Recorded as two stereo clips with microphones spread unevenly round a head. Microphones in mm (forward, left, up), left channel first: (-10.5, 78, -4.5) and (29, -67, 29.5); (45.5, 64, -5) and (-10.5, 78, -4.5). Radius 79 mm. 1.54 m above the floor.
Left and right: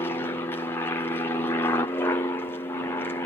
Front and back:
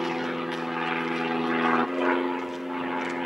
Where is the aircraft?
85° left.